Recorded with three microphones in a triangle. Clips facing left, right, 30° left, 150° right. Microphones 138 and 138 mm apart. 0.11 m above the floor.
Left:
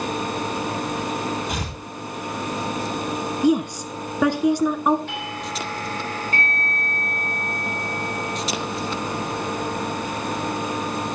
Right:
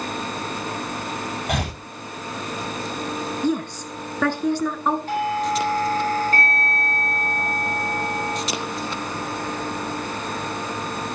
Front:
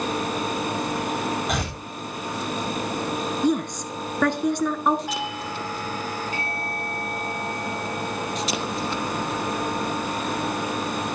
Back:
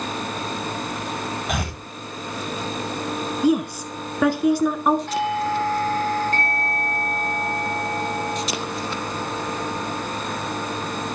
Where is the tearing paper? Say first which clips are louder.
Right 3 dB, even; 60° right, 10 m.